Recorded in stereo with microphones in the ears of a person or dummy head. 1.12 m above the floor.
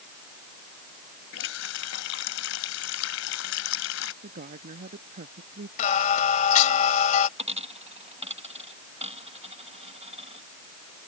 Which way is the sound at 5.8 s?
40° left (ahead or behind).